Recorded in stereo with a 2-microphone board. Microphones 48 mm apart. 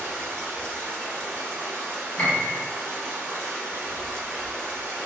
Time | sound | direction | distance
0.0 | running water | 60° right (ahead or behind) | 1.0 m
2.2 | a piano | 25° left (ahead or behind) | 0.9 m